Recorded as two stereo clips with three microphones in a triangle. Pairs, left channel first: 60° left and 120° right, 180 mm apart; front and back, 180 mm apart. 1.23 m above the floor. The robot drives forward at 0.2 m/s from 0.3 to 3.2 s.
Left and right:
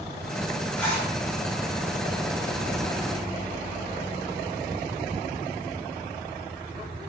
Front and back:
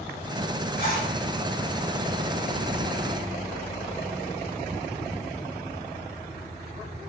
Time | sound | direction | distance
0.8 | a zipper | 20° right | 1.2 m